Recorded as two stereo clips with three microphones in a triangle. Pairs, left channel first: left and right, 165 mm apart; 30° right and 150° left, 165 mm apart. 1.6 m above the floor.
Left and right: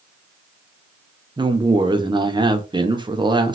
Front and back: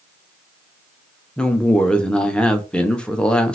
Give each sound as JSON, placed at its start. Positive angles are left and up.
{"t": 1.4, "sound": "a woman speaking", "azimuth_deg": -110, "distance_m": 0.5}